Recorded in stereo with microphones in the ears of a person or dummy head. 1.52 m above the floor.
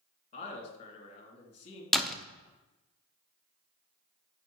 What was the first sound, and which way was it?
A man speaking, 45° left (ahead or behind).